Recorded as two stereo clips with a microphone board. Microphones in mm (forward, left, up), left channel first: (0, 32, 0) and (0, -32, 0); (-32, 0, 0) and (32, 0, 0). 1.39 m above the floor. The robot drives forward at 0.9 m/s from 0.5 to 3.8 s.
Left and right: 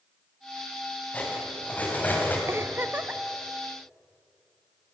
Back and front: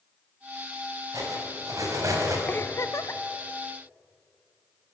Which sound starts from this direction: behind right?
A giggle, at 2.5 s.